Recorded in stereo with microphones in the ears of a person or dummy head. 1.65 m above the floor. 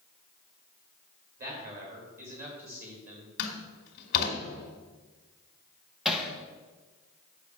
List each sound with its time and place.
1.4 s a man speaking: 45° right (ahead or behind), 3.5 m; by 3.3 s 40° right (ahead or behind), 2.5 m
3.4 s a door slam: 55° left (ahead or behind), 1.9 m
6.0 s hammering: centre (ahead or behind), 1.2 m